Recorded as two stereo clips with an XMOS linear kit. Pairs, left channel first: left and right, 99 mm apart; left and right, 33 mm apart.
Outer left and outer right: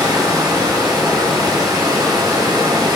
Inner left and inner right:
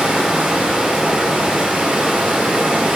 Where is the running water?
45° right (ahead or behind), 1.9 m.